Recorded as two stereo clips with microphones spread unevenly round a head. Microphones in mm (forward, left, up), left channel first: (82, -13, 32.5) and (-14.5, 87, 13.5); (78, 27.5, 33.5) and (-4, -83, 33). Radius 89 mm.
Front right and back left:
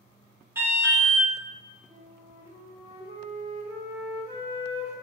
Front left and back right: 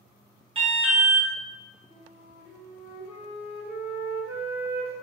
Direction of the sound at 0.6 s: 165° right.